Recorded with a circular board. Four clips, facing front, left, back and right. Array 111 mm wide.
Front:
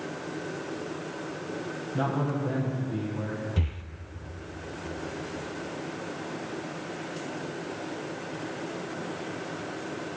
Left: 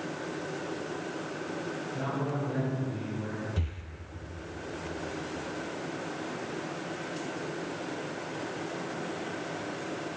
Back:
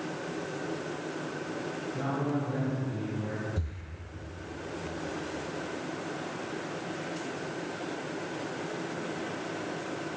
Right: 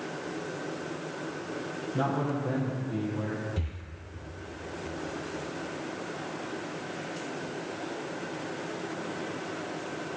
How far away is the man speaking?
About 4.5 m.